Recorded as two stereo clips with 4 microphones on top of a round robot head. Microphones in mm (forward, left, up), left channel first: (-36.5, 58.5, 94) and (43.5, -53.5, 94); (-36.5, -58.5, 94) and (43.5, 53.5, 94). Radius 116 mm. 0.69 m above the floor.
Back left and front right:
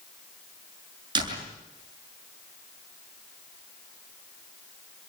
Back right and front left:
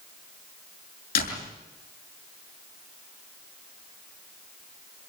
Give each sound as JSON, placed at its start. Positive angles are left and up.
{"t": 1.1, "sound": "a door slam", "azimuth_deg": -110, "distance_m": 6.5}